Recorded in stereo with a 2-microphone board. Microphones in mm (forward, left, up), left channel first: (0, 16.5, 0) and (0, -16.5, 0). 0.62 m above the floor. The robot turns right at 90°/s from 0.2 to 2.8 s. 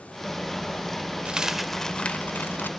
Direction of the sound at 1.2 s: 35° right.